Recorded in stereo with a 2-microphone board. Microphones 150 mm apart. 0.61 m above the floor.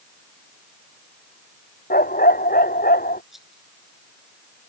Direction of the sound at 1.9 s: 80° left.